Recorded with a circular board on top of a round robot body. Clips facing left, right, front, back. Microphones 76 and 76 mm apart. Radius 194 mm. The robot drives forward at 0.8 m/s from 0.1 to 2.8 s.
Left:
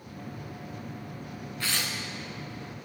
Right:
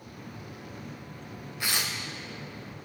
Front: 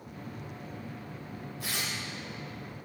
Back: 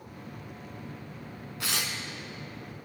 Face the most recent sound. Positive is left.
turn(degrees=-170)